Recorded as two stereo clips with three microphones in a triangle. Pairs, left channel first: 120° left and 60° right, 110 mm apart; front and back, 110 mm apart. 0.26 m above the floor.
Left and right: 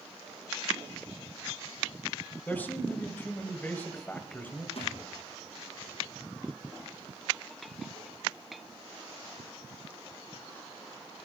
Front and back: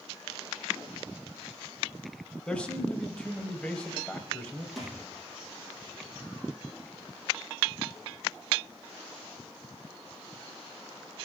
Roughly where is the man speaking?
Left.